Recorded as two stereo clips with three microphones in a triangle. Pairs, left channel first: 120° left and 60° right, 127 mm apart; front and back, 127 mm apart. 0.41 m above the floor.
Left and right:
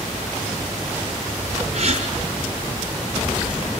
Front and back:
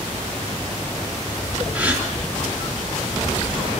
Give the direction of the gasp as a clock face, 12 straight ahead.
3 o'clock.